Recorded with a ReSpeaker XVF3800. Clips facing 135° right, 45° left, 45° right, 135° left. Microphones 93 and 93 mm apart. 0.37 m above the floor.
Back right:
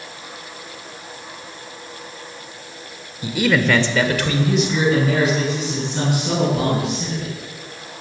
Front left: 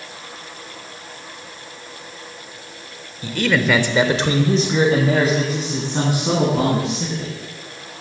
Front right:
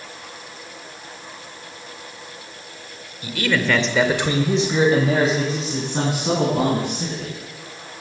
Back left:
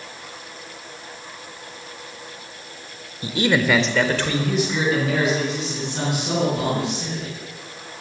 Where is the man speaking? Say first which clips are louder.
Back right 1 dB, back left 2 dB; 160° left, 1.4 m; by 7.3 s straight ahead, 5.5 m.